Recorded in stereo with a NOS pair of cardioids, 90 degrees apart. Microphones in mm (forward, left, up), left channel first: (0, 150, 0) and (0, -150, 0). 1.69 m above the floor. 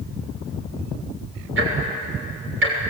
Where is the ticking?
40° right, 7 m.